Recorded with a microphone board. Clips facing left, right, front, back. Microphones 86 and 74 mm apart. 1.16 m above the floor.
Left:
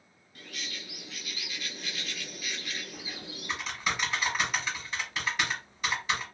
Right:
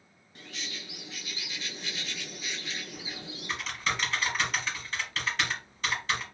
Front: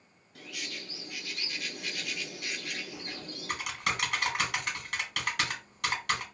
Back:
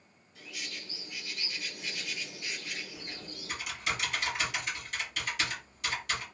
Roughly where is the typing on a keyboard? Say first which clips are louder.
Right 1 dB, front 3 dB; ahead.